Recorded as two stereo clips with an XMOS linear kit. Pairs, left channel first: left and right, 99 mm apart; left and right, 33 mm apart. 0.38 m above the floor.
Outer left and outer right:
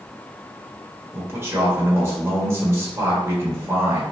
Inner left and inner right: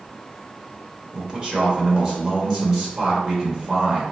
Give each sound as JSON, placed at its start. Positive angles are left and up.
{"t": 1.1, "sound": "a man speaking", "side_deg": -25, "distance_m": 1.4}